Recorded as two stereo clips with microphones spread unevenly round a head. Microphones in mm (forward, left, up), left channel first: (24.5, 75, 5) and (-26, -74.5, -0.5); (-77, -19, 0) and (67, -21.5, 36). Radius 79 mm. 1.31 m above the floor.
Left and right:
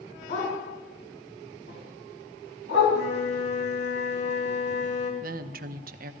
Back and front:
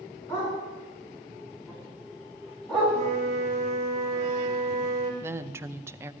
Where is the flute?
50° left, 2.5 m.